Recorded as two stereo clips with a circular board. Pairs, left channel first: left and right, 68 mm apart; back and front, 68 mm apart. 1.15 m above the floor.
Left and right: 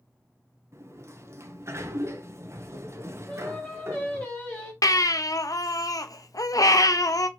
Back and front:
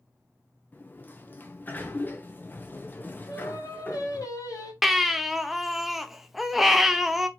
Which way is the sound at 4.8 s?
85° left.